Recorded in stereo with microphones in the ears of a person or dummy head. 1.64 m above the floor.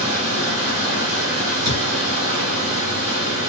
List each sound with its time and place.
0.0 s running water: 65° right (ahead or behind), 1.7 m
1.6 s a thud: 60° right (ahead or behind), 1.9 m